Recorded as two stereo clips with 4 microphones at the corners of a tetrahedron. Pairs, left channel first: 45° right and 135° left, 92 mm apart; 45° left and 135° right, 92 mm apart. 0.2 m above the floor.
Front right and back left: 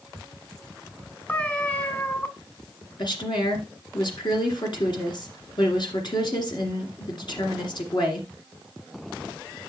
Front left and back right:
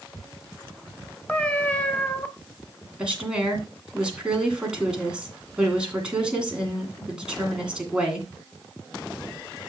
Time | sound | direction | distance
1.3 | a cat meowing | 5° right | 0.7 m
3.0 | a woman speaking | 60° right | 2.5 m